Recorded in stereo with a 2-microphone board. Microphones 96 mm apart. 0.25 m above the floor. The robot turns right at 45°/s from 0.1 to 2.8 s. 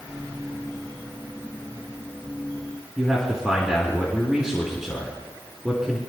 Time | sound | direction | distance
3.0 | a man speaking | 5° right (ahead or behind) | 3 m